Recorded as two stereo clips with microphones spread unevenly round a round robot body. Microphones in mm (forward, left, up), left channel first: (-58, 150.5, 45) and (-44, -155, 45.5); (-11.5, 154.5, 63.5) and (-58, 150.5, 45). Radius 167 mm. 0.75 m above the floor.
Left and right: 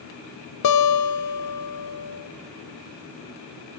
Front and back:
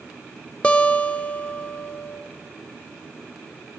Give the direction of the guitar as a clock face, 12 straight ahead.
10 o'clock.